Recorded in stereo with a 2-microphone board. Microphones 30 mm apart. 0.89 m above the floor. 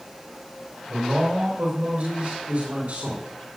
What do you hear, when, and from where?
0.9 s a man speaking: 65° right (ahead or behind), 8 m